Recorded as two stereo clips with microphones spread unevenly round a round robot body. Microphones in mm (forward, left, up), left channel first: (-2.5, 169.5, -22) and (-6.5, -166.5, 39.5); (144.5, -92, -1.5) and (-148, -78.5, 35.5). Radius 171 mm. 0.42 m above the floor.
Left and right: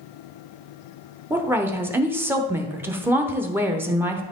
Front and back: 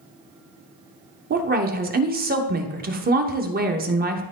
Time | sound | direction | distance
1.3 | a woman speaking | 170° left | 0.9 m